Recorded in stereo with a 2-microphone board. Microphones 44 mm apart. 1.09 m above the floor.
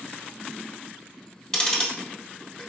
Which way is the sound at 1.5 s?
20° left (ahead or behind).